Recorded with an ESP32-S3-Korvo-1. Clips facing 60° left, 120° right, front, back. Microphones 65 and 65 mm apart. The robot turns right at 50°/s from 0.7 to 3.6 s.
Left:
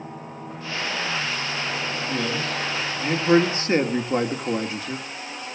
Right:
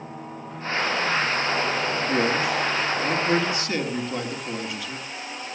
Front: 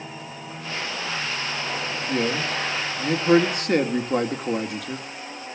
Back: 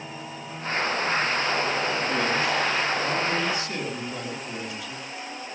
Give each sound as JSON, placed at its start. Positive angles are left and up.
{"t": 2.1, "sound": "a man speaking", "azimuth_deg": -65, "distance_m": 1.8}